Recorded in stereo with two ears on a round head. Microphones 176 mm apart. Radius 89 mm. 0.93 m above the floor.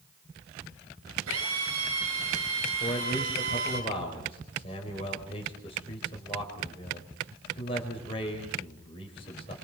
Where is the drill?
80° right, 10 m.